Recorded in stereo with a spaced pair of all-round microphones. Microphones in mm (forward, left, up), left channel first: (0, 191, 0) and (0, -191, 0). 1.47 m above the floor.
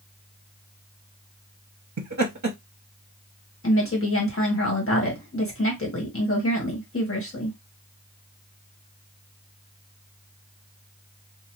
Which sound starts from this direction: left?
A woman speaking, at 3.6 s.